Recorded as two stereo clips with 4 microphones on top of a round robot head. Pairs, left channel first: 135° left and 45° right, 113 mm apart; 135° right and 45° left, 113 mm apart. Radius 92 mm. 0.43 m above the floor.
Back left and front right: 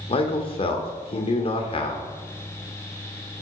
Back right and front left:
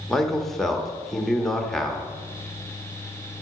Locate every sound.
0.1 s a man speaking: 135° left, 1.1 m